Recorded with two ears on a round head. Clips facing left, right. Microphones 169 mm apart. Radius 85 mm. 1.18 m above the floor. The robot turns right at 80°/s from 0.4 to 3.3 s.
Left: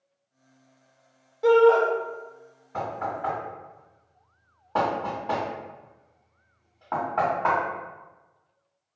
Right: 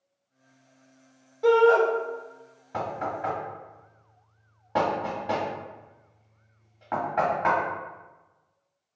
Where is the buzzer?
No buzzer in this recording.